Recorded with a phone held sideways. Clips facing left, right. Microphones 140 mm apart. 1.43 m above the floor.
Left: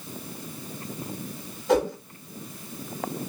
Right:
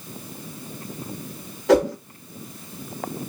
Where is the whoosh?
70° right (ahead or behind), 2 m.